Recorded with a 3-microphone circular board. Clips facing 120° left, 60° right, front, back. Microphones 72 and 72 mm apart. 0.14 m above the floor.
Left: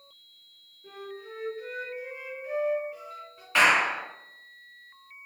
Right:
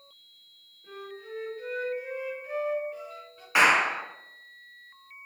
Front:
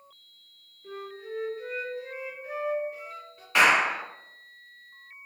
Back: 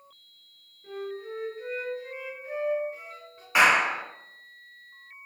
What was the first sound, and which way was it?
A flute, 175° right.